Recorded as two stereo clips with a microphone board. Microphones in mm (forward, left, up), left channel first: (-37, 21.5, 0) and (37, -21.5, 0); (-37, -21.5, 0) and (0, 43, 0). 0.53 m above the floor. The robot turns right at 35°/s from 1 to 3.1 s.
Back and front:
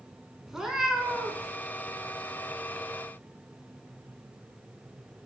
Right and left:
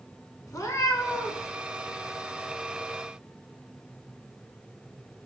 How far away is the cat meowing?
About 0.6 m.